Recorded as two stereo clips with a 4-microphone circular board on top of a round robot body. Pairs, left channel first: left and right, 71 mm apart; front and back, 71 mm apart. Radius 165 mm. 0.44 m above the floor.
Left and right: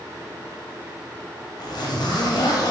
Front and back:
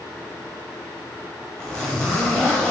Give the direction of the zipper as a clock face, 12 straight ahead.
9 o'clock.